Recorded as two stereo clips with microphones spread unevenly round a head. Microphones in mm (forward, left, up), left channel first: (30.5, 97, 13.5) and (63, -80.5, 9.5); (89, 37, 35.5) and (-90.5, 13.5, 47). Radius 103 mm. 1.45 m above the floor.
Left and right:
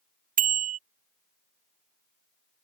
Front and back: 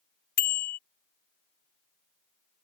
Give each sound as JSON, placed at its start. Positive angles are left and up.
{"t": 0.4, "sound": "a bicycle bell", "azimuth_deg": -35}